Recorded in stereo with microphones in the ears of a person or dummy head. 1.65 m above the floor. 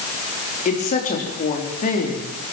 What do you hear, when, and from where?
0.7 s a woman speaking: 35° left (ahead or behind), 4 m